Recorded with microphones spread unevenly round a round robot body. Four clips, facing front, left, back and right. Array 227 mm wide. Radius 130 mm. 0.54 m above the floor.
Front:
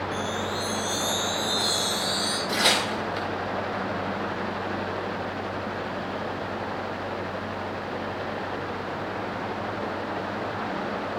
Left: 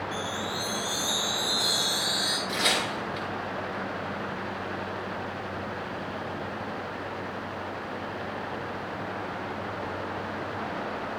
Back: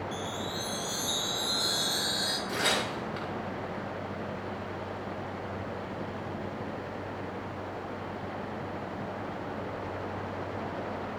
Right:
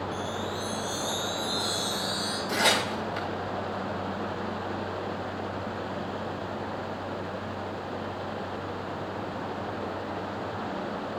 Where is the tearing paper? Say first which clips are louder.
Right 4 dB, front 5 dB; 90° right, 4 m.